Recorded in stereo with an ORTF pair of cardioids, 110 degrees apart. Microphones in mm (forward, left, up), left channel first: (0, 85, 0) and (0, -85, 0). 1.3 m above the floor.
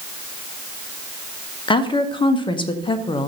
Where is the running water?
No running water in this recording.